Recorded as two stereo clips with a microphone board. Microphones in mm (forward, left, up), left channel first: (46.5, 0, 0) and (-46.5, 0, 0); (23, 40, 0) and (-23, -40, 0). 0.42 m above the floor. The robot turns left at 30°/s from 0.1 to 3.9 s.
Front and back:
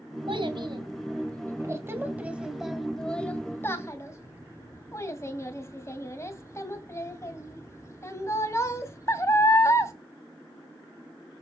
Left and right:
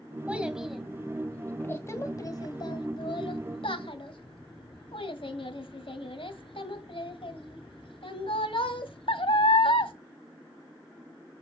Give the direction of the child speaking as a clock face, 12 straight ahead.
6 o'clock.